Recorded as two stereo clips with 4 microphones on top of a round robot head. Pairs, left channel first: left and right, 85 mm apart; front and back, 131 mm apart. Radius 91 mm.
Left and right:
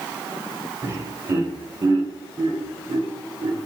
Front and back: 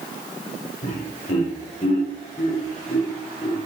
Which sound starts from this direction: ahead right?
Laughter, at 0.8 s.